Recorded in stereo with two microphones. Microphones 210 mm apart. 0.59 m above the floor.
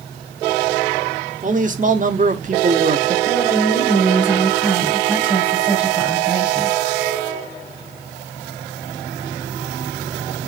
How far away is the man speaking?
About 1.5 m.